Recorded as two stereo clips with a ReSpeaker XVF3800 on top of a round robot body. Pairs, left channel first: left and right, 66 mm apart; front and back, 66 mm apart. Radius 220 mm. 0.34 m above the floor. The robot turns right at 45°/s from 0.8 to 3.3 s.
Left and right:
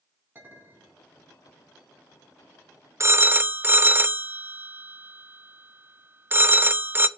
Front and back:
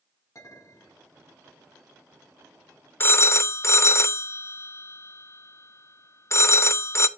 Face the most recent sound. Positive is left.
turn(degrees=-40)